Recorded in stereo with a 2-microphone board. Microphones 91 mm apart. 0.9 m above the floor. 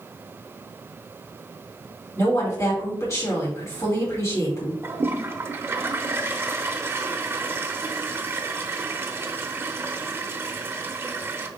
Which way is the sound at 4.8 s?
25° right (ahead or behind).